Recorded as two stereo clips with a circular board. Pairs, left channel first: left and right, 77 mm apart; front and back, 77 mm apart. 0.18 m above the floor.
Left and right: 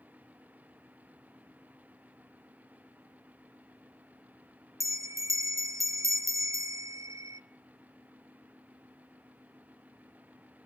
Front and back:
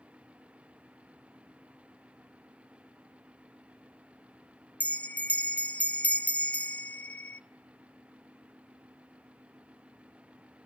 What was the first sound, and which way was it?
A bell, 65° right.